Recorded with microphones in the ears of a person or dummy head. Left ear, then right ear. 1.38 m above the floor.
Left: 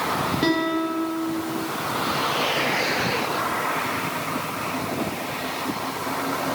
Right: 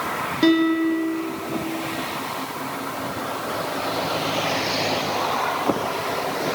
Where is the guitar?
20° right (ahead or behind), 1.7 m.